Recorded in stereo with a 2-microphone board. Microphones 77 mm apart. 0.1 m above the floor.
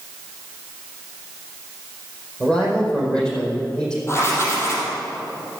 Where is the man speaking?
15° left (ahead or behind), 4.5 m.